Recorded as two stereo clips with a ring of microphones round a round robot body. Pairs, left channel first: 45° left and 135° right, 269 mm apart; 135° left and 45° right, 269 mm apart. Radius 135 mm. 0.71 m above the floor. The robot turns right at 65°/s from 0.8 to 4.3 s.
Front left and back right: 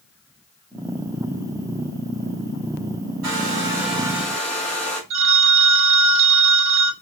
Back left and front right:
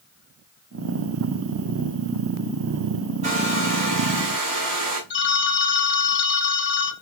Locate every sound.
3.2 s a hair dryer: 110° right, 2.5 m; by 5.0 s 40° right, 2.5 m
5.1 s a phone ringing: 175° right, 0.9 m